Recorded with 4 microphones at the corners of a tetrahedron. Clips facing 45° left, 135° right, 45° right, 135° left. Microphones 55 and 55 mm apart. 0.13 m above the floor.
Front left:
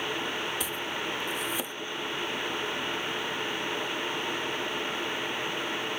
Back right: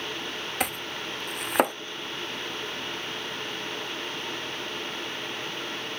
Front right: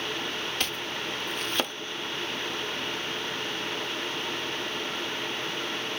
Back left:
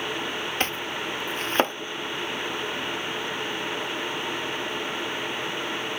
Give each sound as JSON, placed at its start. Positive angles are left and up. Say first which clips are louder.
{"t": 0.6, "sound": "chopping", "louder": "back right 1 dB, back left 4 dB", "azimuth_deg": -170}